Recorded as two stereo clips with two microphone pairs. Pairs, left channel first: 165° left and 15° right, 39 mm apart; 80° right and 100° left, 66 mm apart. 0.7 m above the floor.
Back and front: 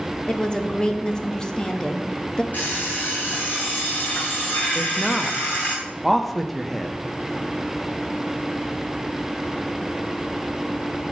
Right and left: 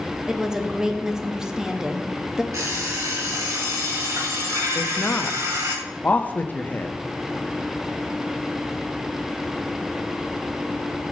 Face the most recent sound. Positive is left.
turn(degrees=-115)